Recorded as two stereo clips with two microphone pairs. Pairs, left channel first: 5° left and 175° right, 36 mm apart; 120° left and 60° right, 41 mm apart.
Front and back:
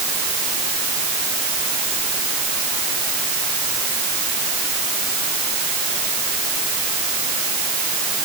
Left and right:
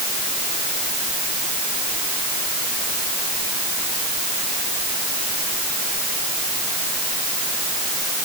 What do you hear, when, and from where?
Only background noise.